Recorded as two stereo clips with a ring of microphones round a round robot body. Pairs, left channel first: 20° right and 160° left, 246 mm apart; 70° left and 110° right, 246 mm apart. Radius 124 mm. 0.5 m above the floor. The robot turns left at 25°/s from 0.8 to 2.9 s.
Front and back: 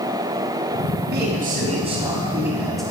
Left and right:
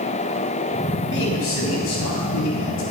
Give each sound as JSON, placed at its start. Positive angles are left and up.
{"t": 1.1, "sound": "a man speaking", "azimuth_deg": 110, "distance_m": 3.5}